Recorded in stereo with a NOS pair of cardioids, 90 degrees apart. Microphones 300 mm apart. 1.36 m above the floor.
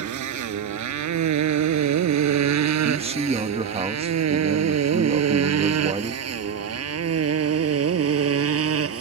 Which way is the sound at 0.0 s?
70° right.